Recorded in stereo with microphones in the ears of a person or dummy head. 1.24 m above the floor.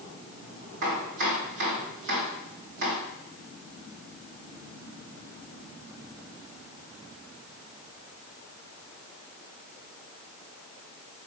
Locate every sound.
0.8 s chopping: 50° right (ahead or behind), 2.5 m